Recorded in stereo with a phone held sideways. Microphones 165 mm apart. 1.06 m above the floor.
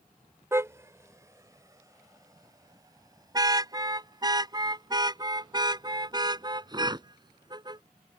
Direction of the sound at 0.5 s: 20° right (ahead or behind).